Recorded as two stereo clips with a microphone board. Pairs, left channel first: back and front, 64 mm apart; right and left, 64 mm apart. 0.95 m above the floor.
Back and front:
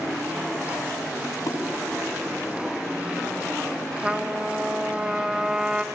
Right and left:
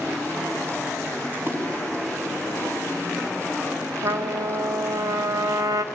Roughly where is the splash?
Behind left.